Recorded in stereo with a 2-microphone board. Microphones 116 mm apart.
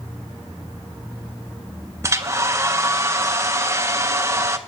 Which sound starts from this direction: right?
A hair dryer, at 2.0 s.